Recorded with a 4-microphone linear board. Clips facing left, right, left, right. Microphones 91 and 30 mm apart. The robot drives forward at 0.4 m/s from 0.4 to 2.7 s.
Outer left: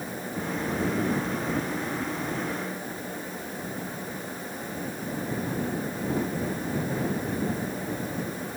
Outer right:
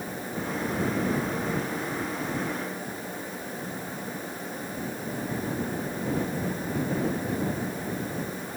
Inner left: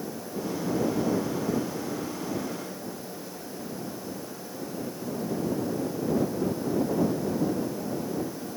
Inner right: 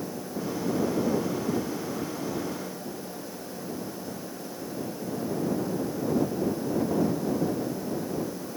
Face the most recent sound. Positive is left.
No sound to turn to.